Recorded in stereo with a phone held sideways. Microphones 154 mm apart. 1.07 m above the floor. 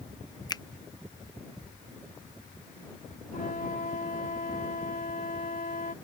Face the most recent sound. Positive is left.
turn(degrees=70)  # may be behind; listen again after turning